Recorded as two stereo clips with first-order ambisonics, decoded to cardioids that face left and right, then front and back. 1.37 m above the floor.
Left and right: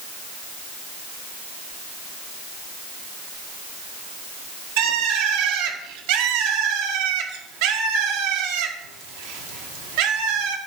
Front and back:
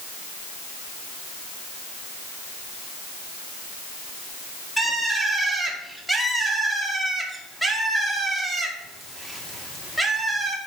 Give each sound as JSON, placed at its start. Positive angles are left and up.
{"t": 4.8, "sound": "a bird", "azimuth_deg": -90, "distance_m": 1.9}